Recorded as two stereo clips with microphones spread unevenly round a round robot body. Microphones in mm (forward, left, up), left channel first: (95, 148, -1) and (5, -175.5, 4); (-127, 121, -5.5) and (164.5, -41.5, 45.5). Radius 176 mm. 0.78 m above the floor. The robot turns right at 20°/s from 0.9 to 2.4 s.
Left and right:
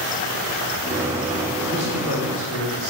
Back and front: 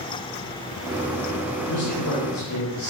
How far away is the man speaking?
About 1.6 m.